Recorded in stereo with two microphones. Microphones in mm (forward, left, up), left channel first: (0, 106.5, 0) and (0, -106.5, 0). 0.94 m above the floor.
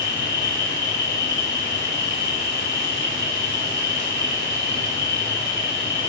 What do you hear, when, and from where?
0.0 s an insect: 55° right (ahead or behind), 3.5 m